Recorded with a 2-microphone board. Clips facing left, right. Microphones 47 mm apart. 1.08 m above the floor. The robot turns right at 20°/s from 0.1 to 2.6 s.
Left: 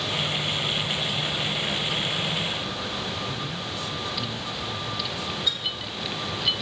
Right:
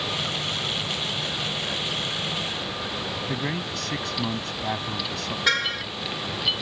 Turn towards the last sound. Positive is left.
turn(degrees=-70)  # may be behind; listen again after turning